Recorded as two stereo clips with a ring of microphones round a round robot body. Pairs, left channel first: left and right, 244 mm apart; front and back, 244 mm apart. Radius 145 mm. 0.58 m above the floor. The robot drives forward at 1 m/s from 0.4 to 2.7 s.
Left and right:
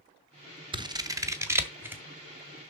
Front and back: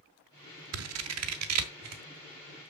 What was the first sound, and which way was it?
Scissors, 160° right.